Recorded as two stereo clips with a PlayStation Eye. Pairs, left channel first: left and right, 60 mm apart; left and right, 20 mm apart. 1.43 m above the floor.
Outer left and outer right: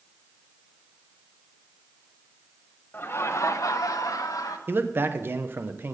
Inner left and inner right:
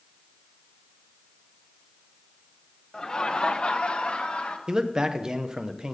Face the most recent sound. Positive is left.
turn(degrees=-40)  # may be behind; listen again after turning